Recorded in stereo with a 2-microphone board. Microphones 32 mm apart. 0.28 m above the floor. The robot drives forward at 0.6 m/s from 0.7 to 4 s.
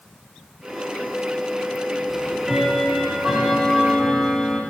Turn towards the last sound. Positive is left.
turn(degrees=-5)  # may be behind; listen again after turning